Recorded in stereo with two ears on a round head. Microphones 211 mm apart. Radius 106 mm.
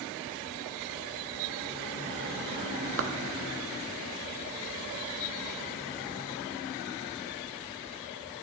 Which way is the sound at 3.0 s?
60° right (ahead or behind).